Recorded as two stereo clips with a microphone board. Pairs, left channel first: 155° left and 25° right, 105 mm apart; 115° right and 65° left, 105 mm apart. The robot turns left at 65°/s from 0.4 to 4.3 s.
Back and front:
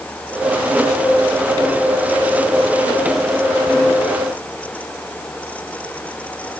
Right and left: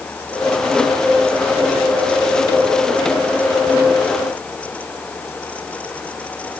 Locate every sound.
Only background noise.